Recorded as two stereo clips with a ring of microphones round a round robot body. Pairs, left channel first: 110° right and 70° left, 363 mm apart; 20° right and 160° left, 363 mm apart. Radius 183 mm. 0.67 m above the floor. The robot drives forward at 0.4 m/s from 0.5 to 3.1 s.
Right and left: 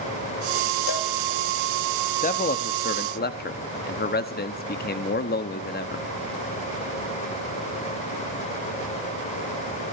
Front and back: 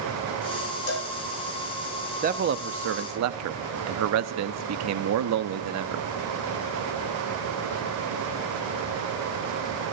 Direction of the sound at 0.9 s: 75° right.